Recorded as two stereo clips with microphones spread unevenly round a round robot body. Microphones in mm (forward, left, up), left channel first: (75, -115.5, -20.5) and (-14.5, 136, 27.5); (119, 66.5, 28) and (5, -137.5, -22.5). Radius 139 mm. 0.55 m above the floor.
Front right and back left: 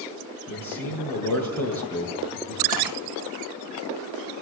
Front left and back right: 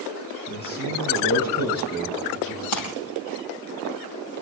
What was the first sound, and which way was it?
A man speaking, 15° left.